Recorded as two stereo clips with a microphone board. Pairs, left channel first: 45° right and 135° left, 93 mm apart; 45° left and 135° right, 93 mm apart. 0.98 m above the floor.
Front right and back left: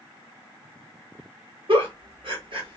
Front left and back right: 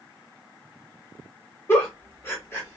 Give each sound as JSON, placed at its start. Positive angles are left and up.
{"t": 1.7, "sound": "a giggle", "azimuth_deg": 105, "distance_m": 1.6}